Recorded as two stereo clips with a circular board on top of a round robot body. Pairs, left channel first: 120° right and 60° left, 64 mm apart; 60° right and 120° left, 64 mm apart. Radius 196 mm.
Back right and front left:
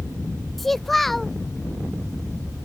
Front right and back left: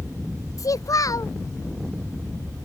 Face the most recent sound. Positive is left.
turn(degrees=-30)